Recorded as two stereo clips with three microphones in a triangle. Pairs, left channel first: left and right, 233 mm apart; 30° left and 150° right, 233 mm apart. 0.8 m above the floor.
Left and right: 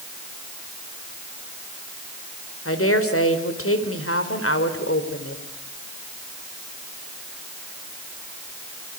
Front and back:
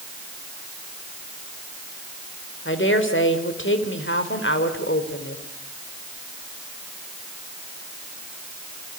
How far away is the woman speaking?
About 3.5 m.